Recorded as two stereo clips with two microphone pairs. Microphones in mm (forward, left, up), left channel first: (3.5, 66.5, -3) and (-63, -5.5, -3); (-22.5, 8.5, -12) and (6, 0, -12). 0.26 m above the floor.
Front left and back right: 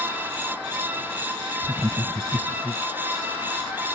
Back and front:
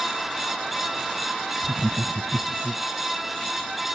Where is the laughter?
90° right; by 2.8 s 105° right.